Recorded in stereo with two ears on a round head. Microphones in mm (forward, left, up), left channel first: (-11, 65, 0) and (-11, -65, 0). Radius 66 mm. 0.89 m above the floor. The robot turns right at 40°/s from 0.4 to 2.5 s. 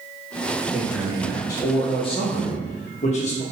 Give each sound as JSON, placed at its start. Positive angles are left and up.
{"t": 0.7, "sound": "a man speaking", "azimuth_deg": -5, "distance_m": 1.1}